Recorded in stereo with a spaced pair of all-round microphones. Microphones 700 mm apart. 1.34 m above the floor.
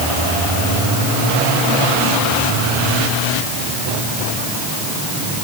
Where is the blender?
I don't hear a blender.